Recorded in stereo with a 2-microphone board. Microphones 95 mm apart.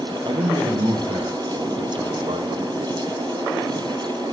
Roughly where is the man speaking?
Right.